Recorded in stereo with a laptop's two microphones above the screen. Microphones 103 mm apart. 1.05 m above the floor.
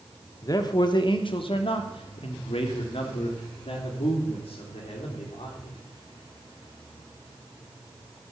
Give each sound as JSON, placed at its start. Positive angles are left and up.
{"t": 0.4, "sound": "a man speaking", "side_deg": 35, "distance_m": 1.1}